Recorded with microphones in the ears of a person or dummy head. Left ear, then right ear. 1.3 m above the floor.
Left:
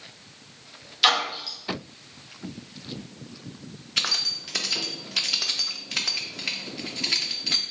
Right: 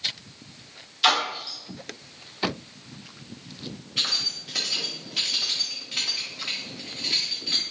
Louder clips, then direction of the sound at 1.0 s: Left 1 dB; 30° left (ahead or behind).